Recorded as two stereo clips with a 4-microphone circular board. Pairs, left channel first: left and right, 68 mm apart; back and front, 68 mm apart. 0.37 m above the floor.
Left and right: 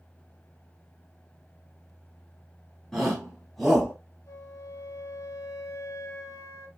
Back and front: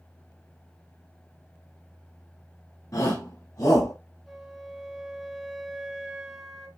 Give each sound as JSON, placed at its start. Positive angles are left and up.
{"t": 2.9, "sound": "a shout", "azimuth_deg": 175, "distance_m": 3.0}
{"t": 4.3, "sound": "a flute", "azimuth_deg": 85, "distance_m": 1.7}